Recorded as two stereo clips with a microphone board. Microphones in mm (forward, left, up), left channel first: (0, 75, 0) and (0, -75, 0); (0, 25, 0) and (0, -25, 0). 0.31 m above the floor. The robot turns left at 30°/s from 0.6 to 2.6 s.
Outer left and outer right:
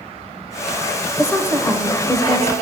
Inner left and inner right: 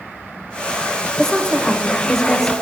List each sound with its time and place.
1.2 s a woman speaking: 15° left (ahead or behind), 1.0 m; by 2.5 s 5° right (ahead or behind), 1.0 m